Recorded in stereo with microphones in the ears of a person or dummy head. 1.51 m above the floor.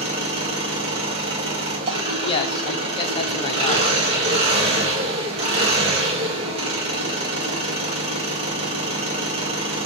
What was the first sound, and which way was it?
An engine running, 35° right (ahead or behind).